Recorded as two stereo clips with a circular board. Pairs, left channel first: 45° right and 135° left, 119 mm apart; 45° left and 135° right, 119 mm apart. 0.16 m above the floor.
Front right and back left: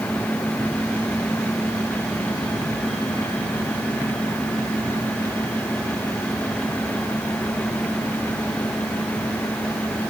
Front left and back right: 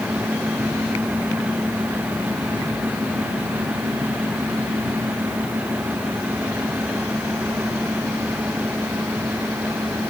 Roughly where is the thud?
I don't hear a thud.